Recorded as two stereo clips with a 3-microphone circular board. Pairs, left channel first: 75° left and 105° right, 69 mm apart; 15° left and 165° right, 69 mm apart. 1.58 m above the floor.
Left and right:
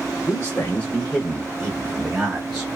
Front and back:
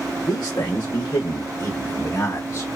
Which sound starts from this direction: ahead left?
A man speaking, at 0.3 s.